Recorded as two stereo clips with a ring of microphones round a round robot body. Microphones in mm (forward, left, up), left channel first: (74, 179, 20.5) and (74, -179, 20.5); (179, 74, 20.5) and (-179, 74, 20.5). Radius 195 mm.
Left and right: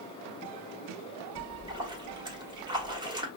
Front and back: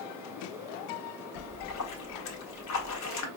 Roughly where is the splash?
Ahead.